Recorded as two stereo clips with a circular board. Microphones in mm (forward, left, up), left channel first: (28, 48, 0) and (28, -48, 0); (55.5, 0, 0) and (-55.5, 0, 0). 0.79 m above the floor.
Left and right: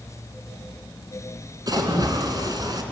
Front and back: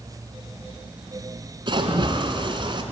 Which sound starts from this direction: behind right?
A splash, at 1.7 s.